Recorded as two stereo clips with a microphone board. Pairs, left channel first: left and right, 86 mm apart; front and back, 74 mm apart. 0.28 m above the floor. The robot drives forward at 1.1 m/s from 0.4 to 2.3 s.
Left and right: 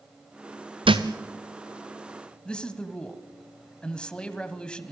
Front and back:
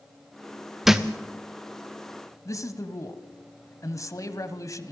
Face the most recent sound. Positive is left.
turn(degrees=15)